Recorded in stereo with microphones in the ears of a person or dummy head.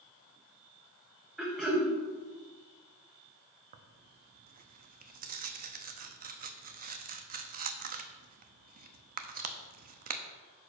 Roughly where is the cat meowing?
No cat meowing in this recording.